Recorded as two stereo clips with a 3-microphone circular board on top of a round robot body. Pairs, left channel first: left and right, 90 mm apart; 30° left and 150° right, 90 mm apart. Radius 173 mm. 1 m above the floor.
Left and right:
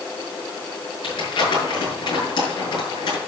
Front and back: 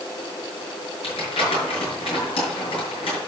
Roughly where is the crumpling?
Ahead left.